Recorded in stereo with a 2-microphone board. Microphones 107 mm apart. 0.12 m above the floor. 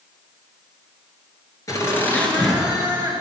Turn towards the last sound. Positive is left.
turn(degrees=-20)  # may be behind; listen again after turning